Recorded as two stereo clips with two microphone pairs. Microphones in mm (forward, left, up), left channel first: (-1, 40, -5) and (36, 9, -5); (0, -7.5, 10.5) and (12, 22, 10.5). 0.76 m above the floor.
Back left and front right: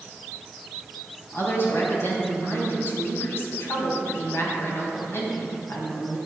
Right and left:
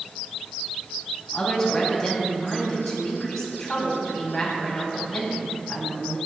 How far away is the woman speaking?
About 4.5 m.